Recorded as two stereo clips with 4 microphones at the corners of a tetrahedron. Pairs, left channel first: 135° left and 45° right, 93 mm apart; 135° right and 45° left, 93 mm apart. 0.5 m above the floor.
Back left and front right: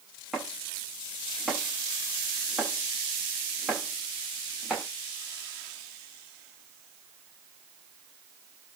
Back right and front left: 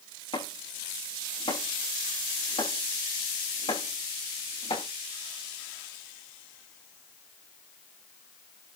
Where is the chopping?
135° right, 7 m.